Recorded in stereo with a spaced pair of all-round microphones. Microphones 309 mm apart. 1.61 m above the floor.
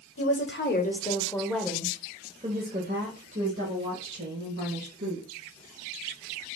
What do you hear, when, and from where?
0.2 s a woman speaking: 50° left (ahead or behind), 1.0 m; by 5.3 s 60° right (ahead or behind), 2 m